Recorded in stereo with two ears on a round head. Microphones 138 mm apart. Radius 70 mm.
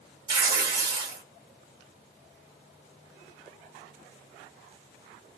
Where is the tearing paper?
65° right (ahead or behind), 1.9 m.